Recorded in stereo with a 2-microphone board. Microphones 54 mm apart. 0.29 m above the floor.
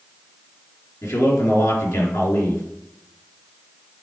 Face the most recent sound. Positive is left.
turn(degrees=70)  # may be behind; listen again after turning